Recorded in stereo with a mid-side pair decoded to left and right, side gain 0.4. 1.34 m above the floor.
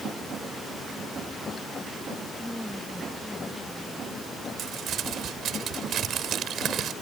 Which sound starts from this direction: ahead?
A woman speaking, at 2.4 s.